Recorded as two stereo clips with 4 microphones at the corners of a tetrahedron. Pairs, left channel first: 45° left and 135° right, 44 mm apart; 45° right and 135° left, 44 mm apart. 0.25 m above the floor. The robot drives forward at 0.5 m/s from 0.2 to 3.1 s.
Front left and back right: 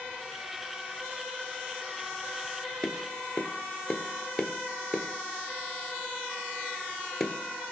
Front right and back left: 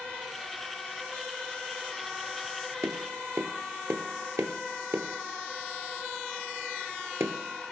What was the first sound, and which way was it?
Tapping, 120° left.